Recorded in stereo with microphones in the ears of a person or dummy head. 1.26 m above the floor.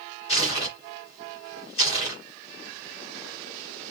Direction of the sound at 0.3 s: 35° left (ahead or behind).